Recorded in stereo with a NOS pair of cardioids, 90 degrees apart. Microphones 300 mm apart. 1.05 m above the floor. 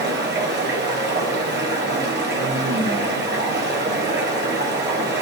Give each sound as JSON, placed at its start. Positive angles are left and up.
{"t": 0.0, "sound": "running water", "azimuth_deg": -35, "distance_m": 1.1}